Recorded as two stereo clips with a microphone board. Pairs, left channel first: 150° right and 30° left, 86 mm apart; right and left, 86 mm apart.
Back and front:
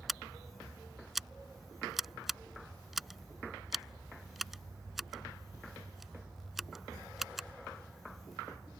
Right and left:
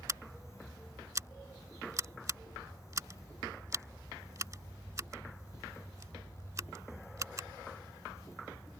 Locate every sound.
0.1 s scissors: 115° left